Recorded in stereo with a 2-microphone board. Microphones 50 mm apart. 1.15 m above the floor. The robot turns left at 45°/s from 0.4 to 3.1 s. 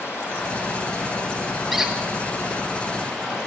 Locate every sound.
0.0 s running water: 135° left, 8.5 m; by 3.5 s 10° left, 8.5 m
1.7 s a squeak: 5° right (ahead or behind), 0.9 m; by 1.9 s 15° right (ahead or behind), 0.9 m